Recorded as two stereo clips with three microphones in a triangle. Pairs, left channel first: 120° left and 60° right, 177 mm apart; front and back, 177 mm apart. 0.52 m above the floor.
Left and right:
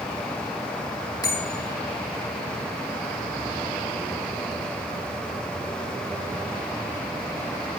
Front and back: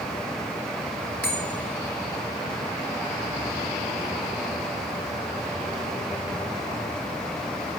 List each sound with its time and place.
1.2 s a bell: 170° right, 5 m